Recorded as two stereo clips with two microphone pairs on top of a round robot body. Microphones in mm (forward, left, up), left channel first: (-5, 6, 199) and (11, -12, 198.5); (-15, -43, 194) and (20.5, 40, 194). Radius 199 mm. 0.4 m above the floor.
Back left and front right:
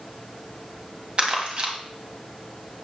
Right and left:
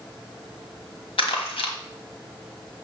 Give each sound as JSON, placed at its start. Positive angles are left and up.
{"t": 1.2, "sound": "crumpling", "azimuth_deg": -100, "distance_m": 1.7}